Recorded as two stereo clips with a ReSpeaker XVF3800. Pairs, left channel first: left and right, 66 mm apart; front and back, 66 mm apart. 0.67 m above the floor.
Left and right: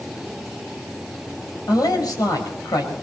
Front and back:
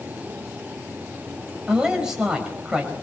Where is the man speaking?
100° left, 4.5 m.